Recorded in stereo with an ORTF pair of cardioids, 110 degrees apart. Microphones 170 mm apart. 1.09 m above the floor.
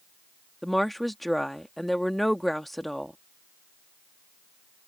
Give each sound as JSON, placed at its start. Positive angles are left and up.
{"t": 0.6, "sound": "a woman speaking", "azimuth_deg": 0}